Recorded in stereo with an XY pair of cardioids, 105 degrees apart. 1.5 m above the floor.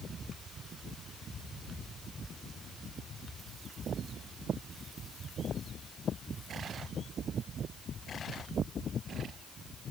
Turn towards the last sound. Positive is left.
No sound to turn to.